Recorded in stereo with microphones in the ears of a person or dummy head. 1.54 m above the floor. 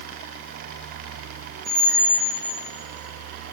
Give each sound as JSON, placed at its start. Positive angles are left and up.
{"t": 1.6, "sound": "a squeak", "side_deg": -55, "distance_m": 0.7}